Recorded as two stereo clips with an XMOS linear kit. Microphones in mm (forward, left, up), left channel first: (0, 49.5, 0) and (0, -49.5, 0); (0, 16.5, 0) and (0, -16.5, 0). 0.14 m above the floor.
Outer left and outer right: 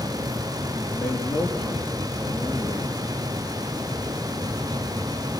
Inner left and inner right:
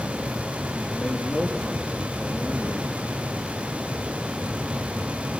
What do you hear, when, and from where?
0.8 s a man speaking: 10° left (ahead or behind), 3.5 m